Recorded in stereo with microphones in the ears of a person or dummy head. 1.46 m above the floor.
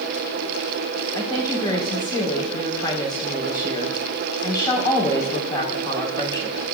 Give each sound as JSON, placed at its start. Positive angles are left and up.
{"t": 1.1, "sound": "a woman speaking", "side_deg": 25, "distance_m": 4.5}